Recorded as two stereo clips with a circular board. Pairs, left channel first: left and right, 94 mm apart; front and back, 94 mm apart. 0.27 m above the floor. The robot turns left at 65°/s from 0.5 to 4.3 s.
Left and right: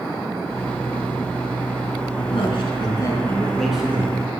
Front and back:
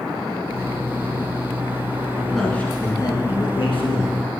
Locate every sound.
2.2 s a man speaking: 100° left, 3 m; by 4.2 s 30° right, 3 m